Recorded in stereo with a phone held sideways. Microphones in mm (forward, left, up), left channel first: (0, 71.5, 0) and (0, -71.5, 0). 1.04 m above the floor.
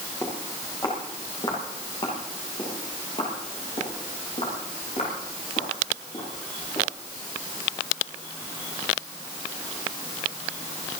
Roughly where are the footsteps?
Left.